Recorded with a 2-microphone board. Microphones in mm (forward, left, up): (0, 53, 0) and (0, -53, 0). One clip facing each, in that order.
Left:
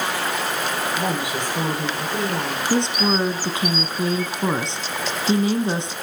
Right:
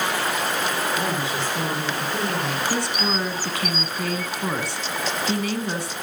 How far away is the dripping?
No dripping in this recording.